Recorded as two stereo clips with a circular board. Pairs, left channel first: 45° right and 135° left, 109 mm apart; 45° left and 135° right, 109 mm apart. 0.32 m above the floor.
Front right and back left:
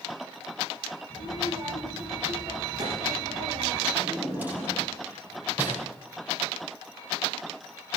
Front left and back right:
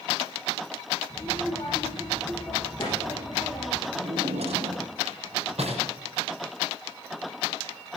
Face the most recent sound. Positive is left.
turn(degrees=-150)